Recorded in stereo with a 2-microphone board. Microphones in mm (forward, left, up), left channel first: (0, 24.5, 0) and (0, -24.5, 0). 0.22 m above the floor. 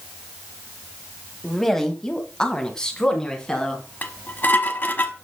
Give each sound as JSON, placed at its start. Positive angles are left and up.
{"t": 1.4, "sound": "a woman speaking", "side_deg": 5, "distance_m": 1.3}
{"t": 4.0, "sound": "dishes clattering", "side_deg": 40, "distance_m": 1.1}